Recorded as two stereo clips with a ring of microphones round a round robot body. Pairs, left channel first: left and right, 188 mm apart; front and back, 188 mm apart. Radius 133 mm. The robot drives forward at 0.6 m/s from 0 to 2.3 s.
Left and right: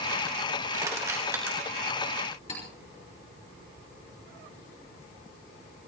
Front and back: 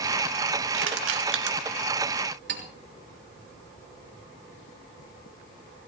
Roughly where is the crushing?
Behind.